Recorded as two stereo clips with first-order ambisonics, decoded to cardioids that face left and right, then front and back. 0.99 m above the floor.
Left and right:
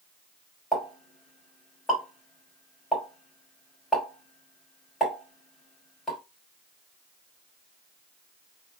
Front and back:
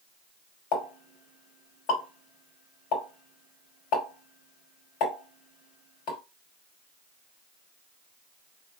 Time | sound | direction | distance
0.7 | a pop | 15° left | 2.5 m